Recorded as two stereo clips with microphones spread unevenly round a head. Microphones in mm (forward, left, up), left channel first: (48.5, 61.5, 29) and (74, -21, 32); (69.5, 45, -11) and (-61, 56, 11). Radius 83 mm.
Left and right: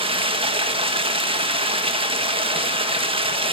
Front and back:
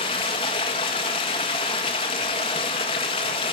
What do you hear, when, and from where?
0.0 s running water: 65° right, 1.7 m